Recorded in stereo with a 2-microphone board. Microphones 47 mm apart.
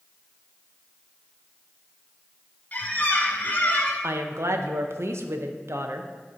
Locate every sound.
2.7 s a squeak: 35° left (ahead or behind), 1.2 m
4.0 s a woman speaking: 70° right (ahead or behind), 0.6 m